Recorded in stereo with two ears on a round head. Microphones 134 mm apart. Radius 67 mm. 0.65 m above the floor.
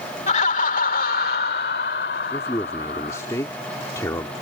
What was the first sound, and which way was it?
Laughter, 45° left (ahead or behind).